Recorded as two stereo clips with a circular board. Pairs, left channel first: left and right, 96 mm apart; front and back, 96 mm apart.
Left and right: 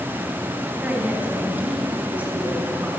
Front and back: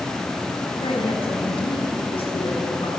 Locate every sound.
0.8 s a woman speaking: 15° right, 4.5 m